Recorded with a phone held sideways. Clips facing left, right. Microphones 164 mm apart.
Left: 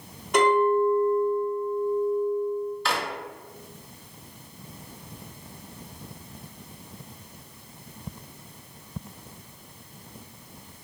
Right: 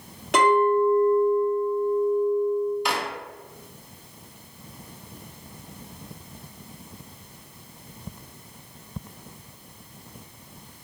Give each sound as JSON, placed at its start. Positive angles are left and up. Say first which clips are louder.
{"t": 0.3, "sound": "a clink", "louder": "right 1 dB", "side_deg": -85, "distance_m": 1.1}
{"t": 2.9, "sound": "a drawer", "louder": "right 1 dB", "side_deg": -15, "distance_m": 0.6}